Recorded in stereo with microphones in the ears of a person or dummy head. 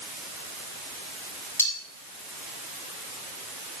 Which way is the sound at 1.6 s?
15° left (ahead or behind).